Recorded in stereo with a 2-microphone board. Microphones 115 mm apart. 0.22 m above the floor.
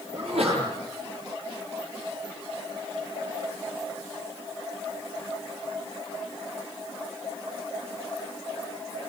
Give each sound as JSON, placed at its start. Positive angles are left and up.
{"t": 0.1, "sound": "a sneeze", "side_deg": -70, "distance_m": 6.0}